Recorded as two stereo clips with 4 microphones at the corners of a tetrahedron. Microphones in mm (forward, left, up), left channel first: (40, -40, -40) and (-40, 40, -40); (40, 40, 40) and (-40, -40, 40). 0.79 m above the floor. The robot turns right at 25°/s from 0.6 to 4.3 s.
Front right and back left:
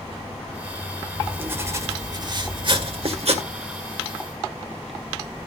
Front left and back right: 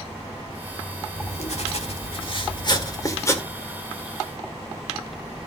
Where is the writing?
55° left, 1.7 m; by 3.5 s 115° left, 1.7 m.